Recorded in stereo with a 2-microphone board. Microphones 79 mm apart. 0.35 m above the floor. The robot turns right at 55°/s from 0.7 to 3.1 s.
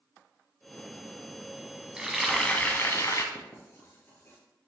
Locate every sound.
2.0 s frying: 15° right, 1.1 m; by 3.2 s 50° left, 1.1 m
3.4 s writing: 30° left (ahead or behind), 2 m